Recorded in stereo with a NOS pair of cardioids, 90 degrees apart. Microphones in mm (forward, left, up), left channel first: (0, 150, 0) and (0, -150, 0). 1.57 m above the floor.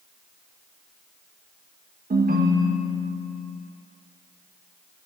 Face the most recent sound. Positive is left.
turn(degrees=-30)